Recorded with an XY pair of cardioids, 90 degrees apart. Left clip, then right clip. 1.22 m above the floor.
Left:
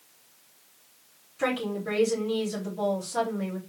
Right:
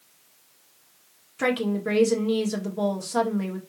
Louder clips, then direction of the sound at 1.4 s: Right 3 dB; 60° right.